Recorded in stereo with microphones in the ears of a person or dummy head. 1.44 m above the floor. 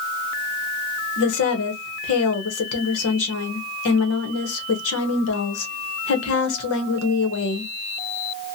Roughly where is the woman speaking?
Left.